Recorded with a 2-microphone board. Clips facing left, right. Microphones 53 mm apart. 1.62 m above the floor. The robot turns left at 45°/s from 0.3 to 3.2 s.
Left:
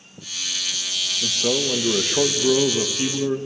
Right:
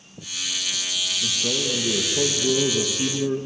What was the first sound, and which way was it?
A man speaking, 110° left.